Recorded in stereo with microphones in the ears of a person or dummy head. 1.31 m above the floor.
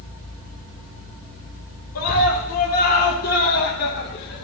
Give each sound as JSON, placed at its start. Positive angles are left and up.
{"t": 1.9, "sound": "a scream", "side_deg": 50, "distance_m": 5.0}